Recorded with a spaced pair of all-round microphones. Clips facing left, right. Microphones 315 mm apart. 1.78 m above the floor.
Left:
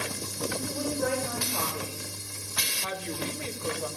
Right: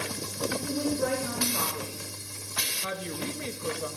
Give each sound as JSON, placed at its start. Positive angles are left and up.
{"t": 0.5, "sound": "a woman speaking", "side_deg": -15, "distance_m": 4.0}
{"t": 2.8, "sound": "a woman speaking", "side_deg": -20, "distance_m": 2.0}